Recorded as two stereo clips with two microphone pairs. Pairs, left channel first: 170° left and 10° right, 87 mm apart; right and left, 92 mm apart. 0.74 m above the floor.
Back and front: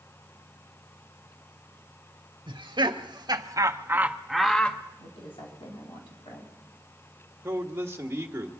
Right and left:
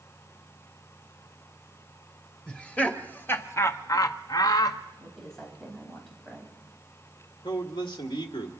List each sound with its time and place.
2.5 s laughter: 15° right, 1.5 m; by 4.8 s 120° right, 0.9 m
5.0 s a woman speaking: 175° right, 4 m
7.4 s a man speaking: 70° right, 1.5 m